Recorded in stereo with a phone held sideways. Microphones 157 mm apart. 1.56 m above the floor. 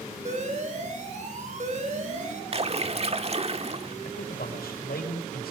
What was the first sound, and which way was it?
An alarm, 50° right (ahead or behind).